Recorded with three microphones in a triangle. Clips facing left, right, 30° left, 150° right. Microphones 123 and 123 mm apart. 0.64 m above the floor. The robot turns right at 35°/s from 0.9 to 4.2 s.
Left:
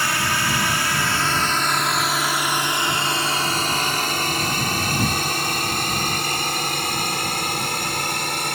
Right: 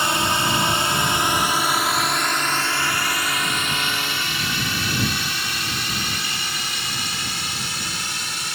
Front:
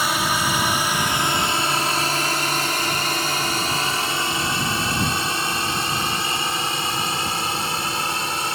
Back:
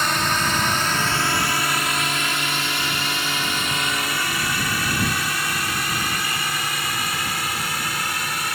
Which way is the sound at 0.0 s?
45° right.